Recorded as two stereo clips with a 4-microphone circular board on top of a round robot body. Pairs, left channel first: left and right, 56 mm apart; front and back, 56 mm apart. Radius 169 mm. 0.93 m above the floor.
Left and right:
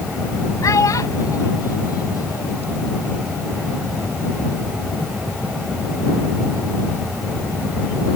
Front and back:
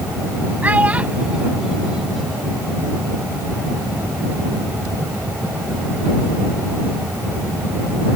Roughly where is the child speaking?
Behind left.